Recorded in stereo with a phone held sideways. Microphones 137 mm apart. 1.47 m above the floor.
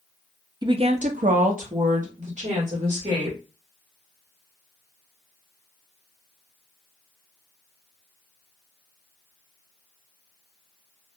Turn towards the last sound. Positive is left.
turn(degrees=-50)  # may be behind; listen again after turning